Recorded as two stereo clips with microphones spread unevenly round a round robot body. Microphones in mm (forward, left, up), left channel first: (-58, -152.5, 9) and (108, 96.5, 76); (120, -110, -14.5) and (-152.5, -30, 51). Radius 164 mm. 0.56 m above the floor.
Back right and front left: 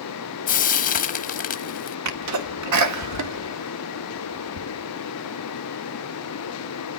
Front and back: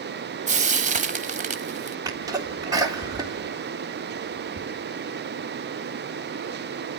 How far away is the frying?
About 0.9 m.